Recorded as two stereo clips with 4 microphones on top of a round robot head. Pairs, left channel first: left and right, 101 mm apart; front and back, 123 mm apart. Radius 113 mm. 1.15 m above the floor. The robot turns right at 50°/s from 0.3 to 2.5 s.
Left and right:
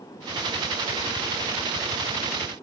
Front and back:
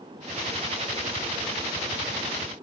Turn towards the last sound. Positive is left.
No sound to turn to.